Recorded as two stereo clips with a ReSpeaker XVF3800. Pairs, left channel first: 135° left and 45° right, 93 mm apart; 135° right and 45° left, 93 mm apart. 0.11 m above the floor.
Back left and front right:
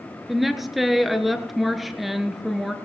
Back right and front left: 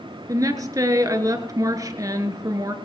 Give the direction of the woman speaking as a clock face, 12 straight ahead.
11 o'clock.